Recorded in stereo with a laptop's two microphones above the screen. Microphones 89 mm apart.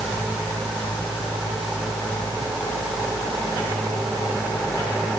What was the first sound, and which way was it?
Only background noise.